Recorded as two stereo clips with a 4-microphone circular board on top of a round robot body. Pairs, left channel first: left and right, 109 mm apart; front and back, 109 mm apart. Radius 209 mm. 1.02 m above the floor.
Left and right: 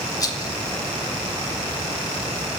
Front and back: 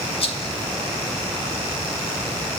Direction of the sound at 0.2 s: 35° left.